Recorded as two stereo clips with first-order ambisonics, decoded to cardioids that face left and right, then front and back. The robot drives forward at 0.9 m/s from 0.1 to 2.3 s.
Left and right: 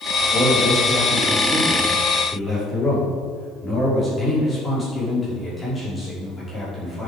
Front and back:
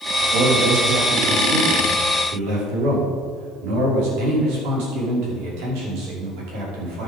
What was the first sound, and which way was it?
A man speaking, 160° left.